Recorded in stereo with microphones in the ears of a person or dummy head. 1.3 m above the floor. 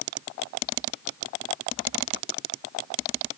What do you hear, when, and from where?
Only background noise.